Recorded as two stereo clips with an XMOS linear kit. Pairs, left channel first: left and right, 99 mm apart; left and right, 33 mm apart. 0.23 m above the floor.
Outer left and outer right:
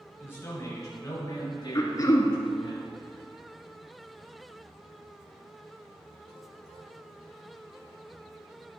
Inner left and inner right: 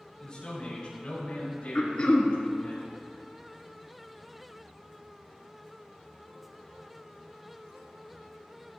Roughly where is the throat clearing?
Left.